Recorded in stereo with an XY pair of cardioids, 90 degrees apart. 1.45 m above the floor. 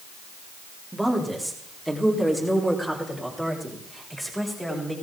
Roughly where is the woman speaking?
Ahead.